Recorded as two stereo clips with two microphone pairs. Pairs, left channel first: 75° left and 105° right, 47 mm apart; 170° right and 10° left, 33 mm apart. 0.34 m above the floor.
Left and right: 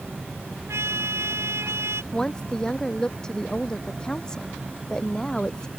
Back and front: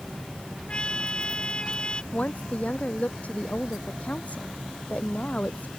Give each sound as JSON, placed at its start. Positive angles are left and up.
{"t": 0.7, "sound": "a trumpet", "azimuth_deg": -115}
{"t": 2.1, "sound": "a woman speaking", "azimuth_deg": 150}